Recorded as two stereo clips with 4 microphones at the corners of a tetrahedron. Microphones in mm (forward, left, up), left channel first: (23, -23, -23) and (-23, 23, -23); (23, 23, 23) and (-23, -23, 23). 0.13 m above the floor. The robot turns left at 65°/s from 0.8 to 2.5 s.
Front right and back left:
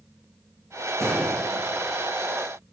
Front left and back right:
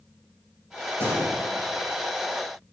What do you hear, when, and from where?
1.0 s a gunshot: 175° left, 6.5 m; by 1.9 s 115° left, 6.5 m